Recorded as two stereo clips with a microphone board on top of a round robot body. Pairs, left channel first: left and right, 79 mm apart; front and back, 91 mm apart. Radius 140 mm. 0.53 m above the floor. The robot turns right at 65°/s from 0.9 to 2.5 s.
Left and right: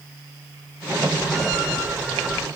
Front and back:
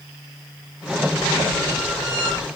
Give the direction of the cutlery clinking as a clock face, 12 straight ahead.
I don't hear cutlery clinking.